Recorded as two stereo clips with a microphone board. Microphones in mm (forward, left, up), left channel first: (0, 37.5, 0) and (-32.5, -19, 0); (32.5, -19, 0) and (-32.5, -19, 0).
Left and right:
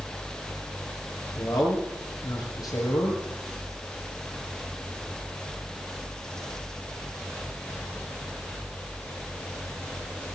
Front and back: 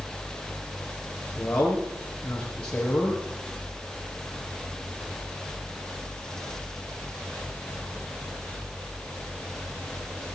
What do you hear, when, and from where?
1.4 s a man speaking: 75° left, 6.5 m